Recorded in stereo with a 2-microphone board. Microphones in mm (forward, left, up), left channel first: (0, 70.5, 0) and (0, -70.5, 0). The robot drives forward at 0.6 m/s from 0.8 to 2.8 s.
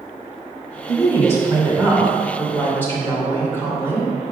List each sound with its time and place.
0.9 s a woman speaking: 20° left (ahead or behind), 2.5 m; by 4.1 s 15° left (ahead or behind), 3.5 m